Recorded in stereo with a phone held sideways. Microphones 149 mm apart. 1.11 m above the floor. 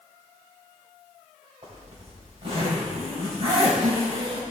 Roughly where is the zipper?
Right.